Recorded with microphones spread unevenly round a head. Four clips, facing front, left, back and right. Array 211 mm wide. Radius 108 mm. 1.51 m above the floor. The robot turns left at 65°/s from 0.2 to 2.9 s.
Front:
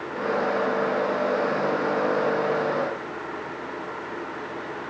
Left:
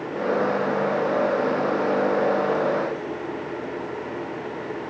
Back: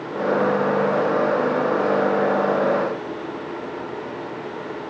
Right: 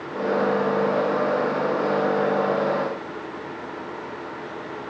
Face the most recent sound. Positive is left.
No sound to turn to.